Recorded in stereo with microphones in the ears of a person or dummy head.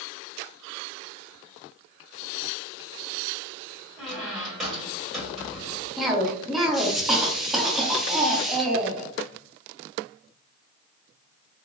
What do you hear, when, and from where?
4.0 s a squeak: centre (ahead or behind), 1.4 m
6.0 s a cough: centre (ahead or behind), 0.9 m